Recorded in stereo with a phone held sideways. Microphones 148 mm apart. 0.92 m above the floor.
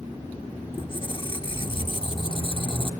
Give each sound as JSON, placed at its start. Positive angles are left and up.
{"t": 0.7, "sound": "a squeak", "side_deg": 35, "distance_m": 1.1}